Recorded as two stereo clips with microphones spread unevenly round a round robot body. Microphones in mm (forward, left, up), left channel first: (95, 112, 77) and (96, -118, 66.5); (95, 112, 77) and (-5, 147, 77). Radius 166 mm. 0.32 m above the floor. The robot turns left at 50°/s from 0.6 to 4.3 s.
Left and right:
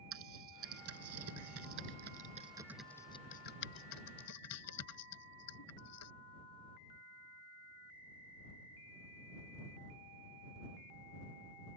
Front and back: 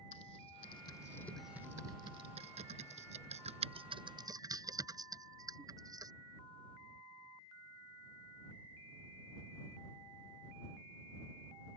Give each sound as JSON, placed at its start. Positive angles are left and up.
{"t": 0.1, "sound": "typing on a keyboard", "azimuth_deg": -70}